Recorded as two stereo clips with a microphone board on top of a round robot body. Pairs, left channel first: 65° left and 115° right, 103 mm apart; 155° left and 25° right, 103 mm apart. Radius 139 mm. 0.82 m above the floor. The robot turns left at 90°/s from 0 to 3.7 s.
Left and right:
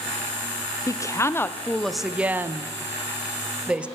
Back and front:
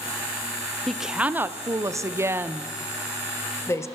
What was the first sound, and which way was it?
A woman speaking, 75° left.